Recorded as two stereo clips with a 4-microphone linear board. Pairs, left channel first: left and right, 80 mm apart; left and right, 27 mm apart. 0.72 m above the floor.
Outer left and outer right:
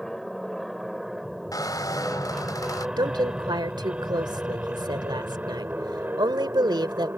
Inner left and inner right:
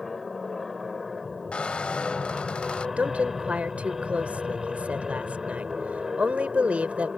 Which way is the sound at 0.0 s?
Centre (ahead or behind).